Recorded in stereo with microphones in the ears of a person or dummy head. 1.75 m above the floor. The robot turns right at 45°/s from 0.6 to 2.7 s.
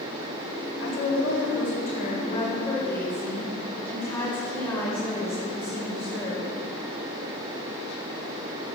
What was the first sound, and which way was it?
A woman speaking, 85° left.